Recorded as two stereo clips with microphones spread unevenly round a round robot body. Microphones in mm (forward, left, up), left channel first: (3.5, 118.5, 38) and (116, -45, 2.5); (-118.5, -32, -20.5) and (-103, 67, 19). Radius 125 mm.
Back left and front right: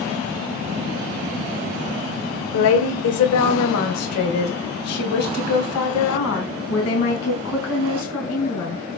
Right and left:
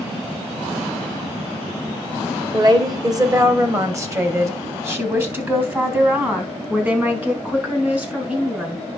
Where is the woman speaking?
135° left, 1.8 m; by 9.0 s 155° left, 5.5 m.